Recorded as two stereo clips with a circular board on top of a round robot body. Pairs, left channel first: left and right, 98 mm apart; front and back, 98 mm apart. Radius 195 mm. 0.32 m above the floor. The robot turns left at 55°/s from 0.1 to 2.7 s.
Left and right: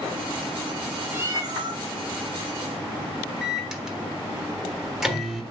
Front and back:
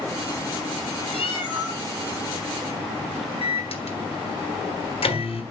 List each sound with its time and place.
1.1 s a cat meowing: 20° right, 3 m; by 1.8 s 55° right, 3 m
3.4 s a microwave: 5° right, 3.5 m